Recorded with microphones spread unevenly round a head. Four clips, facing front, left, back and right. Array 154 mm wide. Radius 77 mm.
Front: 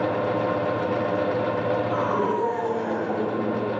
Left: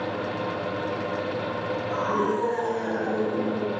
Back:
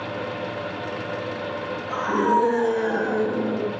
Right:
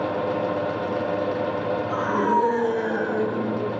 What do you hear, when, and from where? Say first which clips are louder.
1.9 s a scream: right 3 dB, back 2 dB; 160° right, 9.5 m; by 3.7 s 165° right, 8.5 m